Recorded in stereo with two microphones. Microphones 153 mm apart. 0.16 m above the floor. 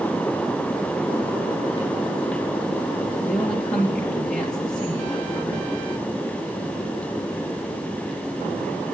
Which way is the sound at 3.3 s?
5° left (ahead or behind).